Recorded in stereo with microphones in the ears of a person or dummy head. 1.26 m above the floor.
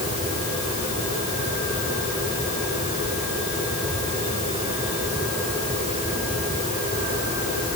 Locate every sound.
Only background noise.